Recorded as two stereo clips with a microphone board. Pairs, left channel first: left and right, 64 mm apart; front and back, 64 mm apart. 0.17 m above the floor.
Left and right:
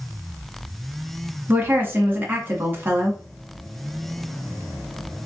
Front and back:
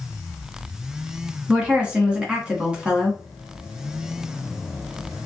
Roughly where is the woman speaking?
Behind right.